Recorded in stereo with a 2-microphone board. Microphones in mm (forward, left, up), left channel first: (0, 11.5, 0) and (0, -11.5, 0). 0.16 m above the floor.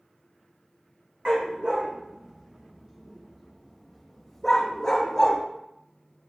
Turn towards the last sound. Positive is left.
turn(degrees=20)  # may be behind; listen again after turning